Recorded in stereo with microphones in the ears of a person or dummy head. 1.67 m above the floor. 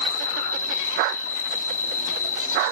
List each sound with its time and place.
0.0 s an insect: 15° left (ahead or behind), 1.4 m